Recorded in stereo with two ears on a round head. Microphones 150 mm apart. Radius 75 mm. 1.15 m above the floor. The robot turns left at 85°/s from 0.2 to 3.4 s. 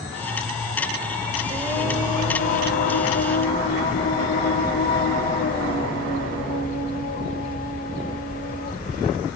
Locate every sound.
1.5 s singing: 145° right, 1.2 m; by 9.2 s 55° left, 1.2 m